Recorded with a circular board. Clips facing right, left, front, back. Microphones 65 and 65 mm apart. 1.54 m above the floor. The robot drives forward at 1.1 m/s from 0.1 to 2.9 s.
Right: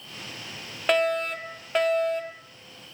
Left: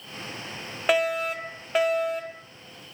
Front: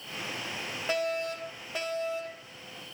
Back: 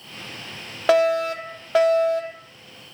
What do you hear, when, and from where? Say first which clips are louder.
0.9 s a fire alarm: even, back 13 dB; 175° left, 2 m; by 2.5 s straight behind, 4 m